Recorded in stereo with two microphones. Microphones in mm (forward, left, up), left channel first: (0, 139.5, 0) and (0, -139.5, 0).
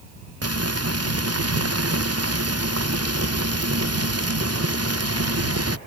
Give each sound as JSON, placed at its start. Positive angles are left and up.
{"t": 0.4, "sound": "frying", "side_deg": -60}